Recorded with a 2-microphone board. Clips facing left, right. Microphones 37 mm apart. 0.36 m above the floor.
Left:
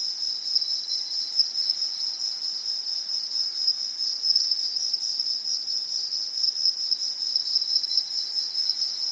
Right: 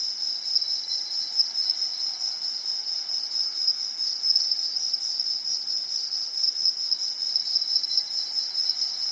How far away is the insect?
About 0.8 m.